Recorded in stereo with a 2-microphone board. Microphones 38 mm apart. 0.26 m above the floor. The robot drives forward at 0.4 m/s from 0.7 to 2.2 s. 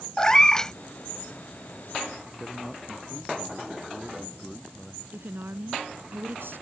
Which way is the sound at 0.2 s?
20° left (ahead or behind).